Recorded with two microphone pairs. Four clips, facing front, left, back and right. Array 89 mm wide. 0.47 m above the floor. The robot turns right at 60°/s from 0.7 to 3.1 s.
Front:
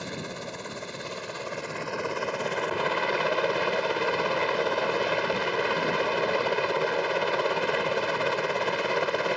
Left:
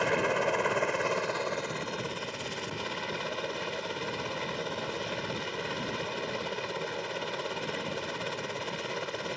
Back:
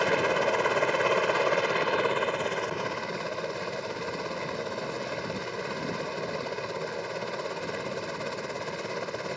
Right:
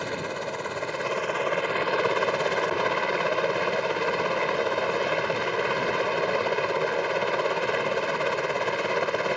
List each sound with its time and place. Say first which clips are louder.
0.0 s a helicopter: left 3 dB, back 11 dB; 165° left; by 9.4 s 50° right